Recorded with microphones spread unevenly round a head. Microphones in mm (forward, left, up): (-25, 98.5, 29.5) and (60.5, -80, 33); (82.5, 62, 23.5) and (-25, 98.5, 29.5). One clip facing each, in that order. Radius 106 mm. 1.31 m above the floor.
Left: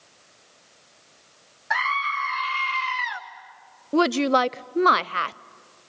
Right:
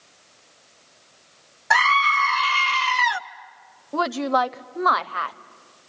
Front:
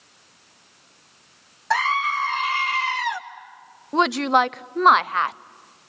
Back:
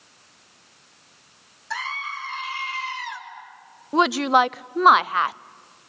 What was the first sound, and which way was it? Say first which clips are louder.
A scream: right 7 dB, front 10 dB; 45° right.